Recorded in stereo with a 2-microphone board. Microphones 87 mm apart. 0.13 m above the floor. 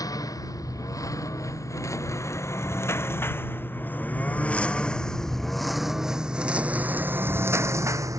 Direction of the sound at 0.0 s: 40° left (ahead or behind).